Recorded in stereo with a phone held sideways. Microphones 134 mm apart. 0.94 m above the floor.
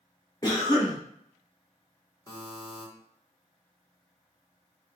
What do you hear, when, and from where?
0.4 s a cough: 30° left (ahead or behind), 0.7 m
2.3 s a buzzer: 25° left (ahead or behind), 1.0 m